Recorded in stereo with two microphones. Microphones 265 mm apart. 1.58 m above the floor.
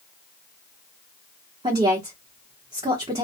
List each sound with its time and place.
1.6 s a woman speaking: 20° right (ahead or behind), 0.9 m